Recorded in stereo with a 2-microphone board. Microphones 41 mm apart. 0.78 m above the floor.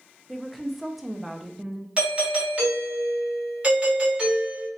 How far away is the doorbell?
About 1.6 m.